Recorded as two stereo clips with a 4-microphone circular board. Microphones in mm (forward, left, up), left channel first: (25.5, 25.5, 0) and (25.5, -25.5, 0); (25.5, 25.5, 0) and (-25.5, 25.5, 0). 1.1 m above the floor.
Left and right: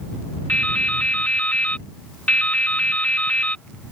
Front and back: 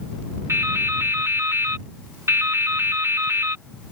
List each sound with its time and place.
0.5 s dripping: 150° left